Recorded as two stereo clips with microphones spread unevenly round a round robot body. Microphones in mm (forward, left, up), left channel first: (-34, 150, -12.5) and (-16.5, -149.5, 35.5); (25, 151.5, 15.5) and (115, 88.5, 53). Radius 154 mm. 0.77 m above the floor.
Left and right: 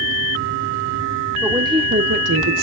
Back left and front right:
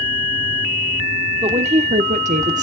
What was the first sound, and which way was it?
A woman speaking, straight ahead.